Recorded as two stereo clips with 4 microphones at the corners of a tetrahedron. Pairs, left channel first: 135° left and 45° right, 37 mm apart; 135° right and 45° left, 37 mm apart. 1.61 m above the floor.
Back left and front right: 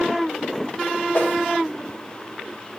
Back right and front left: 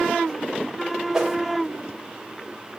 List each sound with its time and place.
1.1 s a whoosh: 120° left, 1.7 m